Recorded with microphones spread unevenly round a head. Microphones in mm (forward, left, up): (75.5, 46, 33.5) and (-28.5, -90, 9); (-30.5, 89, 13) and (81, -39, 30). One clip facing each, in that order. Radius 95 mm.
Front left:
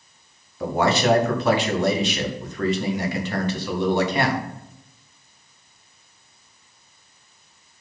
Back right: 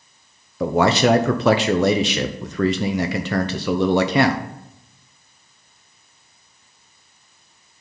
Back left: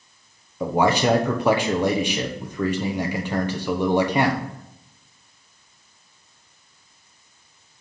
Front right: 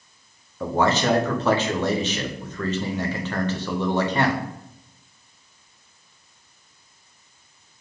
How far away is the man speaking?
About 0.8 m.